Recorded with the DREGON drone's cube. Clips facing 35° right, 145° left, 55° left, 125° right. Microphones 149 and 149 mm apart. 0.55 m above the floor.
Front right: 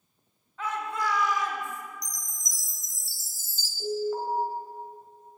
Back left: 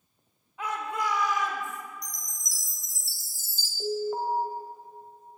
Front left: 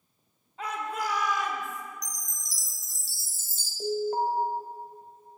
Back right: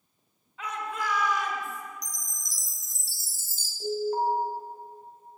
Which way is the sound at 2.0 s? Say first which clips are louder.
Even, even; 75° right.